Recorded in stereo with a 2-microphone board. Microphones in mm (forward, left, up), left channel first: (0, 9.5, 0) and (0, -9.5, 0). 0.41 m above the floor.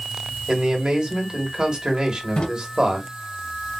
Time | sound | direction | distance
0.5 | a man speaking | 50° right (ahead or behind) | 1.4 m
2.4 | a drawer | 60° left (ahead or behind) | 1.3 m